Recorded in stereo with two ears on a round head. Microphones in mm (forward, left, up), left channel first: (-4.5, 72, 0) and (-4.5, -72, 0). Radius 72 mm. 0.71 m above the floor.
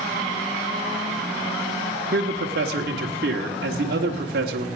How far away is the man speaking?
About 1.2 m.